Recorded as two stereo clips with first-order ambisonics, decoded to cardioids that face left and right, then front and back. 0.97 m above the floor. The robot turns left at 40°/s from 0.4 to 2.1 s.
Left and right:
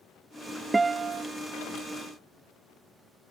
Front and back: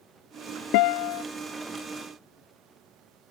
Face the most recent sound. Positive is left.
turn(degrees=-65)